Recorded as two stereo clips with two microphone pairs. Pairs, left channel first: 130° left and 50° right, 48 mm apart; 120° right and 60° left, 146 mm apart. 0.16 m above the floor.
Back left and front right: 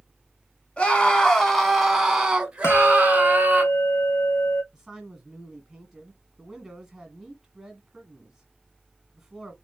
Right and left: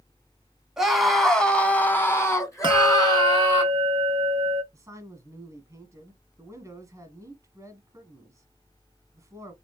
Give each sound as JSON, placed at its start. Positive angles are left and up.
{"t": 0.8, "sound": "a scream", "azimuth_deg": 140, "distance_m": 1.4}
{"t": 2.6, "sound": "a bell", "azimuth_deg": 110, "distance_m": 0.6}
{"t": 4.7, "sound": "a man speaking", "azimuth_deg": 20, "distance_m": 1.2}